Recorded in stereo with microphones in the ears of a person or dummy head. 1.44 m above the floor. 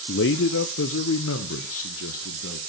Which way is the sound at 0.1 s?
60° left (ahead or behind).